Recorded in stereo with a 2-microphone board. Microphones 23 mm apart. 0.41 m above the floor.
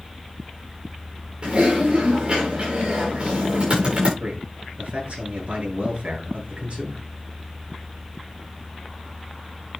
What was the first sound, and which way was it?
Typing on a keyboard, 45° right (ahead or behind).